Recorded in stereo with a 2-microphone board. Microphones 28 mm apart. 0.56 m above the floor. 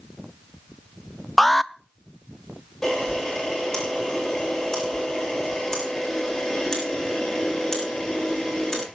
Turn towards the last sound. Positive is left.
turn(degrees=20)  # may be behind; listen again after turning